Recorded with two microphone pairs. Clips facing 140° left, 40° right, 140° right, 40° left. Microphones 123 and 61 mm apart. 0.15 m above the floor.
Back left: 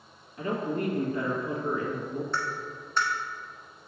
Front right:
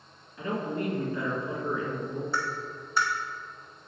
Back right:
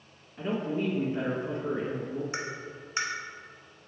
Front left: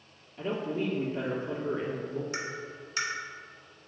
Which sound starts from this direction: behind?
A woman speaking, at 0.4 s.